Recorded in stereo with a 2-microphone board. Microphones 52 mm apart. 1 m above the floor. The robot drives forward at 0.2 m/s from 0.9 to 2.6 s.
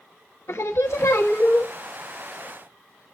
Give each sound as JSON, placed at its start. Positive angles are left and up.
{"t": 0.5, "sound": "singing", "side_deg": 65, "distance_m": 1.1}